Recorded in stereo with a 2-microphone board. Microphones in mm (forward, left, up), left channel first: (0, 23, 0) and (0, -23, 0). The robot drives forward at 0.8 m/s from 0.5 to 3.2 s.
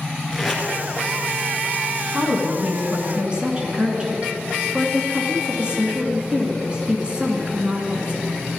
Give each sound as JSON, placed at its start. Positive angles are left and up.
{"t": 0.3, "sound": "tape being pulled", "side_deg": -10, "distance_m": 2.5}
{"t": 2.1, "sound": "a woman speaking", "side_deg": -30, "distance_m": 1.9}